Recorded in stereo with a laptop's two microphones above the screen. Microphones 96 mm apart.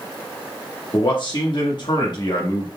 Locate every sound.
0.9 s a man speaking: 50° left (ahead or behind), 1.2 m